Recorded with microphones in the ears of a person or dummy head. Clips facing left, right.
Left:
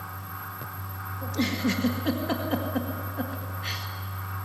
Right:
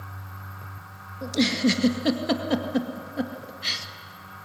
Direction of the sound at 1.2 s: 55° right (ahead or behind).